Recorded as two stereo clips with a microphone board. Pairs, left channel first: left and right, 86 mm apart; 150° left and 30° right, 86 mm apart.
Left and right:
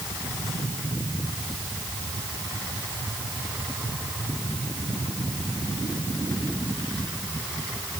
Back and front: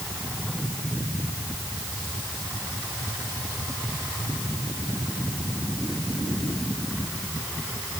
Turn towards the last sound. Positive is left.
No sound to turn to.